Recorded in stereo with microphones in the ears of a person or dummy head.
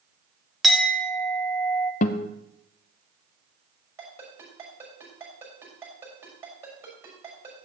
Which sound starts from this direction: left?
A guitar, at 2.0 s.